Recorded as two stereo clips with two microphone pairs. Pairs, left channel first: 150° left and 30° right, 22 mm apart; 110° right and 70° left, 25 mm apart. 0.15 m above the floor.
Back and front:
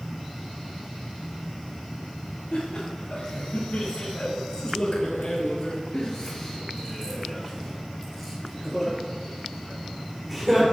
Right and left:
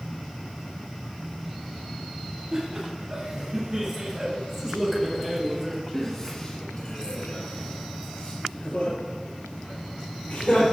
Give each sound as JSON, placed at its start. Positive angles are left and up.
{"t": 2.5, "sound": "laughter", "azimuth_deg": 95, "distance_m": 3.0}